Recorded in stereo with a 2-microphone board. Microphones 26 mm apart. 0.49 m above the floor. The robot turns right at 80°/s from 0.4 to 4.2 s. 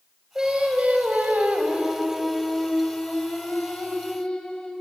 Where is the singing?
155° right, 3 m; by 4.7 s 145° left, 3 m.